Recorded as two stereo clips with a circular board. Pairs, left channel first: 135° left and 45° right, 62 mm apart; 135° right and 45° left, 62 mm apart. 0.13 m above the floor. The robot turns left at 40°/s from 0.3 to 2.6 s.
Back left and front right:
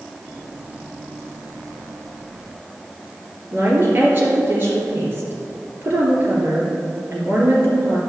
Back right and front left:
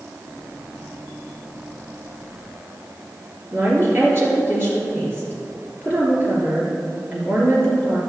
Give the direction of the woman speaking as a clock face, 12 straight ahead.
12 o'clock.